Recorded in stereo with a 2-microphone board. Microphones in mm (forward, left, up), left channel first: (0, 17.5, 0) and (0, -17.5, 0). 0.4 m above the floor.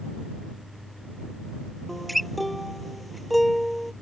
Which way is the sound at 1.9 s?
Centre (ahead or behind).